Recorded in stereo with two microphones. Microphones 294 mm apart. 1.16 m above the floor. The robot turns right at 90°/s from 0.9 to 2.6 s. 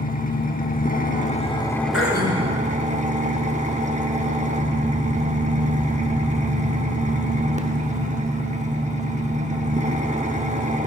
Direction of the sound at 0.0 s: 85° left.